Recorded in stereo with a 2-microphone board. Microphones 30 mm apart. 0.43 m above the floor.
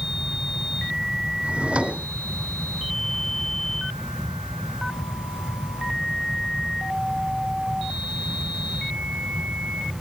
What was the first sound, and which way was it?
A drawer, 40° right (ahead or behind).